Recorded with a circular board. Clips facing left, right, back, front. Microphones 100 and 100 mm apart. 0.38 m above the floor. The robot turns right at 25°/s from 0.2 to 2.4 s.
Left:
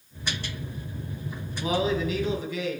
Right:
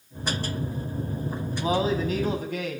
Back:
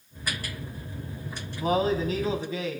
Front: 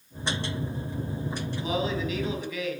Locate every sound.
1.6 s a man speaking: 145° right, 2.5 m; by 2.8 s 125° right, 2.5 m